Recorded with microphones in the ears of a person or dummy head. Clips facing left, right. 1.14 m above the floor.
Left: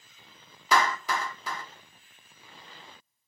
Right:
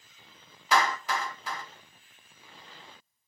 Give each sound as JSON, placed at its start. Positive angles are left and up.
{"t": 0.7, "sound": "a clap", "side_deg": 80, "distance_m": 1.7}